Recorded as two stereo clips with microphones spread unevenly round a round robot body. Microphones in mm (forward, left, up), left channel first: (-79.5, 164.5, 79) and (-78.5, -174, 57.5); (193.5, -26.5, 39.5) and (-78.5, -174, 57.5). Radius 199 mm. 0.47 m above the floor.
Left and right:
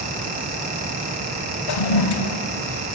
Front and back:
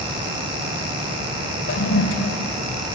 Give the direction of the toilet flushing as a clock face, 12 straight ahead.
9 o'clock.